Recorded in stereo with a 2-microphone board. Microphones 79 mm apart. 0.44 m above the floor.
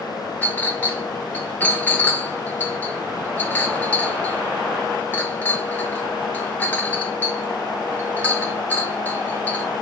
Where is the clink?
20° left (ahead or behind), 0.7 m.